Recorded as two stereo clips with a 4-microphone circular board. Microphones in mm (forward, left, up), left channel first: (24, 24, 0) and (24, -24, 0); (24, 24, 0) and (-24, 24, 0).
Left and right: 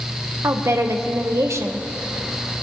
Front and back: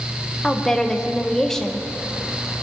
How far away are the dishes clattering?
No dishes clattering in this recording.